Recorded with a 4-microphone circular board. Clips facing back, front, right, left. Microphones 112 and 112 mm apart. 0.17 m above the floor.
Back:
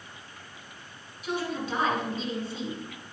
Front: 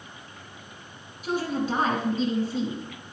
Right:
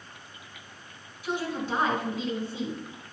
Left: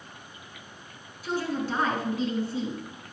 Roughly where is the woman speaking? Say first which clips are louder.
Front 4 dB, left 2 dB; ahead right.